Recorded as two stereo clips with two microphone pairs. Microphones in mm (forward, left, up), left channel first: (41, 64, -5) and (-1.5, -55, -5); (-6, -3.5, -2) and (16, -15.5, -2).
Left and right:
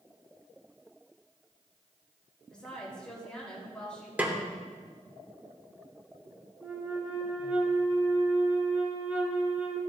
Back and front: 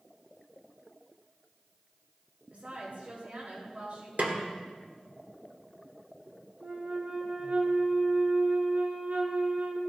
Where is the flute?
30° right, 1.8 m.